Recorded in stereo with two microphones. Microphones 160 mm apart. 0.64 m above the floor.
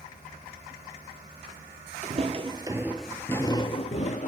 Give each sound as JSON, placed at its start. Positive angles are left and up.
{"t": 2.0, "sound": "footsteps", "side_deg": -45, "distance_m": 0.9}